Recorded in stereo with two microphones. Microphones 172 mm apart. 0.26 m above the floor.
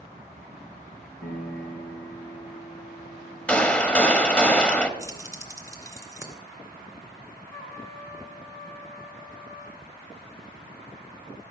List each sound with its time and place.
1.2 s a piano: 70° left (ahead or behind), 3.5 m
3.5 s a gunshot: 5° left (ahead or behind), 0.8 m
5.0 s keys jangling: 20° right (ahead or behind), 2.5 m
7.5 s a trumpet: 20° left (ahead or behind), 4.5 m